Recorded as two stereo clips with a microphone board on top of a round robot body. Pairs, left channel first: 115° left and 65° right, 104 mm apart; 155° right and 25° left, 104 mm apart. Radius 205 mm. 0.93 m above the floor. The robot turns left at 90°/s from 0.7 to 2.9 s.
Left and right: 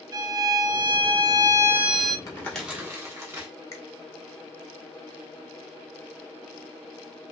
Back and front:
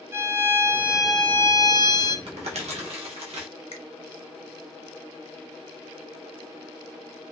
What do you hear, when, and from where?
0.1 s a violin: 35° right, 0.8 m; by 2.2 s 170° right, 0.8 m
2.3 s crumpling: 55° left, 1.0 m; by 3.5 s 5° right, 1.0 m
3.7 s a finger snap: 175° left, 0.7 m